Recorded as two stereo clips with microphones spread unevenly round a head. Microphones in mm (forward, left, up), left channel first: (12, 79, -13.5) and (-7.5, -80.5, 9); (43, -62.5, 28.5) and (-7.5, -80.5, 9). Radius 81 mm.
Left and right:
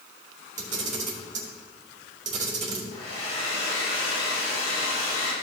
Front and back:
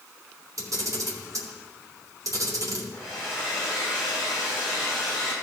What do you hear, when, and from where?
0.6 s a camera shutter: 140° right, 2 m
2.9 s a hair dryer: 90° left, 3 m